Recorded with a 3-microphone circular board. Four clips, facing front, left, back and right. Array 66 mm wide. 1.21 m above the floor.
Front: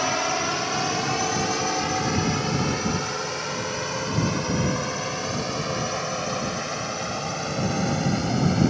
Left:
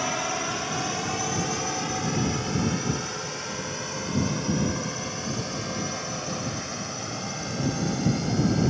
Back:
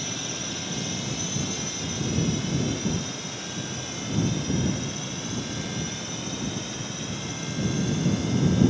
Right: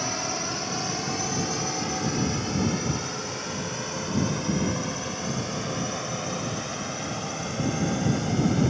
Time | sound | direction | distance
0.0 | a drone | 15° left | ?